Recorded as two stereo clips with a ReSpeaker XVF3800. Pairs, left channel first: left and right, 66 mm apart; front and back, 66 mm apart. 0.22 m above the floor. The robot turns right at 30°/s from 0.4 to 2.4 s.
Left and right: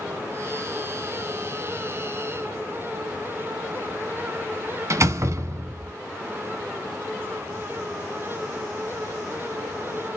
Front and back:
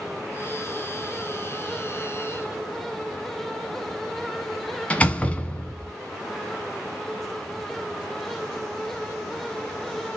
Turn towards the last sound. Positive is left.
turn(degrees=-65)